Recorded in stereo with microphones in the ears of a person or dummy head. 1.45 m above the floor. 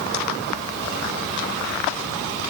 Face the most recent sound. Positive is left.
No sound to turn to.